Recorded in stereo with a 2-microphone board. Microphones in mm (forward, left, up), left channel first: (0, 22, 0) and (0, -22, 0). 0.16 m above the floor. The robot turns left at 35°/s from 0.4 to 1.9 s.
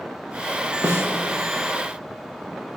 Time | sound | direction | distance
0.8 | a snare drum | 75° right (ahead or behind) | 3 m